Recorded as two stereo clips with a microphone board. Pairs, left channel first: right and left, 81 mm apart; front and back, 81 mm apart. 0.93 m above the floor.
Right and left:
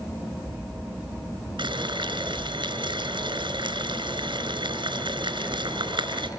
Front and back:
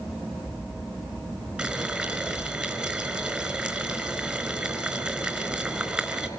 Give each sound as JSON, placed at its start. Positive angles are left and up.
{"t": 1.6, "sound": "boiling", "azimuth_deg": 105, "distance_m": 5.0}